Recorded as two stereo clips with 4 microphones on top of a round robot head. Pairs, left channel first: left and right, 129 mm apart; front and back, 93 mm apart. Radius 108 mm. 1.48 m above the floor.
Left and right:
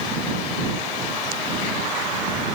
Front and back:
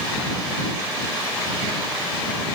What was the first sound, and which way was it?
Only background noise.